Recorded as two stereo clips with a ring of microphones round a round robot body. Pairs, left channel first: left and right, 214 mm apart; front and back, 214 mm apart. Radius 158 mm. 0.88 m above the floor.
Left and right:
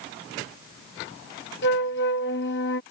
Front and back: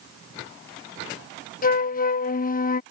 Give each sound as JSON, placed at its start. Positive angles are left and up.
{"t": 1.6, "sound": "a flute", "azimuth_deg": 45}